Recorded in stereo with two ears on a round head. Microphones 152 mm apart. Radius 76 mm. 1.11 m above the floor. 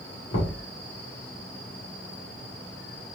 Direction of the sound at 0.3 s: 70° left (ahead or behind).